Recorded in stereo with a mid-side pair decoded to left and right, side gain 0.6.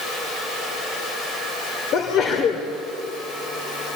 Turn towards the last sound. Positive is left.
turn(degrees=55)